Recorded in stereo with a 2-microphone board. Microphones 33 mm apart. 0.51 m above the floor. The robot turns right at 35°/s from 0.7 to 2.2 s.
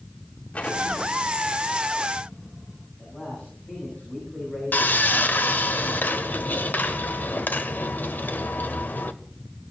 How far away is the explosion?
About 2 m.